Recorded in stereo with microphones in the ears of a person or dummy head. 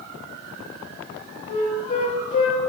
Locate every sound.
1.5 s a flute: 35° left (ahead or behind), 0.8 m